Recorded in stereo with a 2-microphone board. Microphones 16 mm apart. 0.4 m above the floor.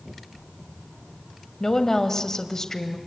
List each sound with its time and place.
1.6 s a woman speaking: 35° left (ahead or behind), 2 m